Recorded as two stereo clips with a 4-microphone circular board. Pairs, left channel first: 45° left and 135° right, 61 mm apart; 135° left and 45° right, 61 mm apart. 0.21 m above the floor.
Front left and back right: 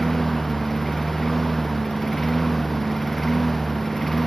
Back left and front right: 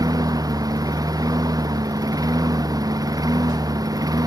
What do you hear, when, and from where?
0.0 s a lawn mower: 45° right